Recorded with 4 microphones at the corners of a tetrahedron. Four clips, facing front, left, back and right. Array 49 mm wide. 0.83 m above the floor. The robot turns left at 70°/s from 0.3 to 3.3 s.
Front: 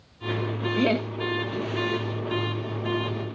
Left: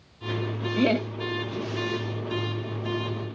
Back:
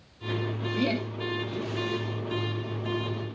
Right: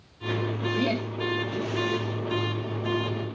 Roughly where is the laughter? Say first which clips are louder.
Left 5 dB, front 5 dB; ahead left.